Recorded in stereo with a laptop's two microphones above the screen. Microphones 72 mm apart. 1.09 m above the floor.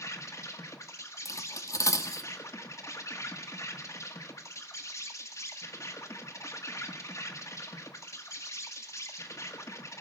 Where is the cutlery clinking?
50° left (ahead or behind), 1.3 m.